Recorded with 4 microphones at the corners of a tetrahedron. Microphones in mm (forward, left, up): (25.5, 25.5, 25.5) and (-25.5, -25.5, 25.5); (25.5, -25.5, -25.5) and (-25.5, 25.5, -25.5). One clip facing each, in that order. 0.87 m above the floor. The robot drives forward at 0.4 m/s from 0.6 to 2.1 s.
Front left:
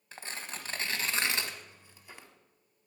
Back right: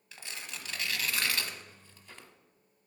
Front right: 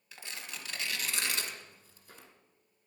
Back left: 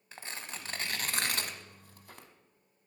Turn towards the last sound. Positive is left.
turn(degrees=125)